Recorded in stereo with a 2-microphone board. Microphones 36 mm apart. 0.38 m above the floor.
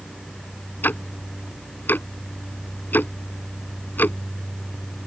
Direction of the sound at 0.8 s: 70° left (ahead or behind).